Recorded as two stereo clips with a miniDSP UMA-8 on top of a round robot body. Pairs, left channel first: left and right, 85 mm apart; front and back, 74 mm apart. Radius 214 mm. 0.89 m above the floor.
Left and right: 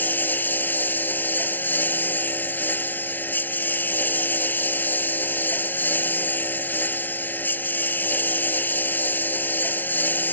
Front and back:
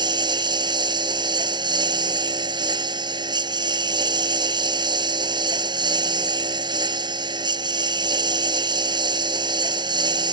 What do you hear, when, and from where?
0.0 s a lawn mower: 160° left